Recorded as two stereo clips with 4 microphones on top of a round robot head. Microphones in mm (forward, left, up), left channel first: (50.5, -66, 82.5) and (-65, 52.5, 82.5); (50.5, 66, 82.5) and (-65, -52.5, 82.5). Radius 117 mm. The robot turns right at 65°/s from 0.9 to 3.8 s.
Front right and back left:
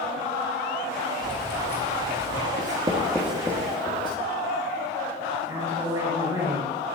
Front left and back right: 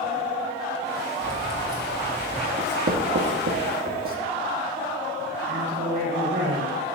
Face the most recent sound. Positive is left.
turn(degrees=-155)